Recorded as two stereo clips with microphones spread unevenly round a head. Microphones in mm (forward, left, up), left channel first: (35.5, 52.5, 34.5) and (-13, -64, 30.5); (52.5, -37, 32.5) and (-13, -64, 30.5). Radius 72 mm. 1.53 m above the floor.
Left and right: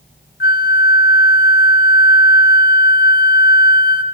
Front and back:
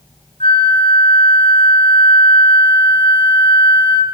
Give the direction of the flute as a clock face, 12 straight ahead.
10 o'clock.